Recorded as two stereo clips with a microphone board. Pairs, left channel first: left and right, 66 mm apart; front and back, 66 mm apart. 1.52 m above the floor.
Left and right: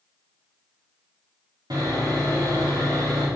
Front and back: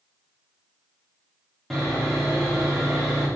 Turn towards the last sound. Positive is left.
turn(degrees=-85)